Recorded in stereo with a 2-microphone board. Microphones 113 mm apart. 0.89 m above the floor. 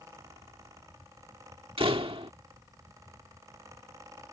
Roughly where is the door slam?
Right.